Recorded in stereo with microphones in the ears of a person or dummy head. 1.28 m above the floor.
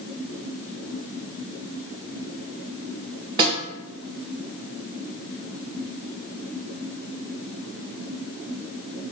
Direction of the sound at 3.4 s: 25° right (ahead or behind).